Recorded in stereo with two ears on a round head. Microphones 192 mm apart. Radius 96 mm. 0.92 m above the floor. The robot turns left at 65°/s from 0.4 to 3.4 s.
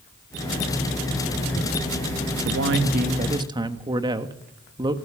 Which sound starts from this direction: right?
A man speaking, at 2.4 s.